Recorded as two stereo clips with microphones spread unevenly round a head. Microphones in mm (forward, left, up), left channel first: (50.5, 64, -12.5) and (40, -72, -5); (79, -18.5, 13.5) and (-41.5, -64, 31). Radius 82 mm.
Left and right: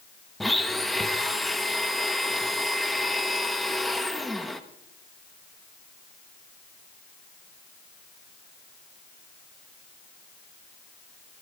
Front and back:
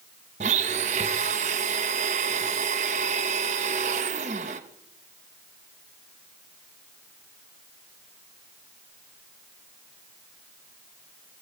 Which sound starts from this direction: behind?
A blender, at 0.4 s.